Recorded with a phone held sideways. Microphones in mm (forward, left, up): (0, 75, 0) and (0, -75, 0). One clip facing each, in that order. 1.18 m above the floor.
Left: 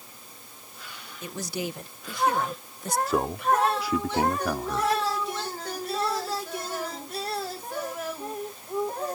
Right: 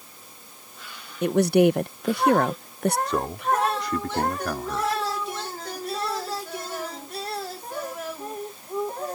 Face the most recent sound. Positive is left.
turn(degrees=5)  # may be behind; listen again after turning